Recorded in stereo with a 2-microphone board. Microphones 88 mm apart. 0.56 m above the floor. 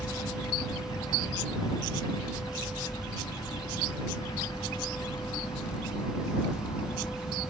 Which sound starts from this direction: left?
A helicopter, at 0.0 s.